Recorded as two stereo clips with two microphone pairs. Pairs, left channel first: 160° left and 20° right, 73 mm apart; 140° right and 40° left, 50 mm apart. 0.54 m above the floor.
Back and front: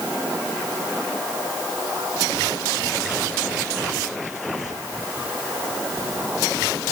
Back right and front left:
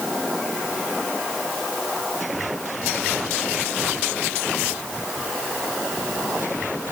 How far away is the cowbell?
No cowbell in this recording.